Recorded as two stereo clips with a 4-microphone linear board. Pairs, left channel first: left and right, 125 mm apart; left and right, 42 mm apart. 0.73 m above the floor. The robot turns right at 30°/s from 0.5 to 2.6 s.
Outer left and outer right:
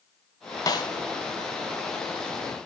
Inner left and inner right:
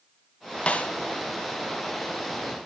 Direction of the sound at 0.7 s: 30° left (ahead or behind).